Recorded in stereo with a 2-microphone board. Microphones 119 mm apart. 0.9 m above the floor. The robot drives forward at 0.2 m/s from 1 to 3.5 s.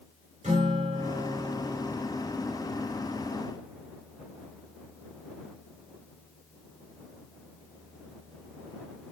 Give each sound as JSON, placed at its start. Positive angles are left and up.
{"t": 0.4, "sound": "a guitar", "side_deg": -80, "distance_m": 3.0}